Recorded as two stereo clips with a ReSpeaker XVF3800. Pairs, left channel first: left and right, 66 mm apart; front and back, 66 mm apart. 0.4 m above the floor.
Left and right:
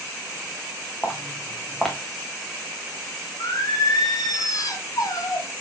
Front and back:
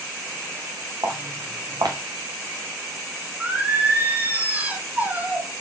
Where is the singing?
115° left, 1.9 m.